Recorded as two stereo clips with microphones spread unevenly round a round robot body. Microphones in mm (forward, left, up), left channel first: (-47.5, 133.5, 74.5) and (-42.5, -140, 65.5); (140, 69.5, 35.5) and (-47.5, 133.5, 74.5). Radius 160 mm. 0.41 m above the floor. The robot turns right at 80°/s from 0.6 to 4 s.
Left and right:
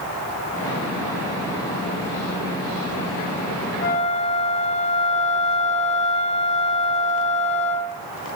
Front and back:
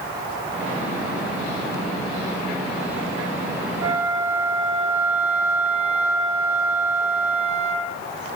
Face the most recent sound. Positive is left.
turn(degrees=155)